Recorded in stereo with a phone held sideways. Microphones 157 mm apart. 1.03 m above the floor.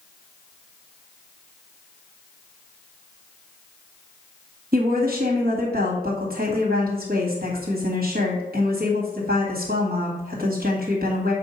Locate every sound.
4.7 s a woman speaking: 70° right (ahead or behind), 1.8 m